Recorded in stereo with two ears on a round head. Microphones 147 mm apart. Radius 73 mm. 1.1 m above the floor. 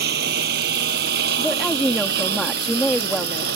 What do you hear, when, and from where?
0.0 s a lawn mower: 65° right (ahead or behind)
1.4 s a woman speaking: centre (ahead or behind)